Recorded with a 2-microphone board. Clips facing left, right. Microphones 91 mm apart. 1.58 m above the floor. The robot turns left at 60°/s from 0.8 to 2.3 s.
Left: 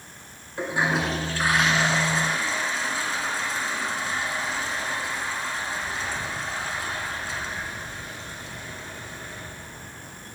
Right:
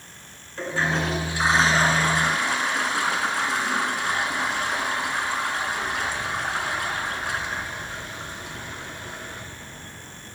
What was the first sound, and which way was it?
A toilet flushing, 15° left.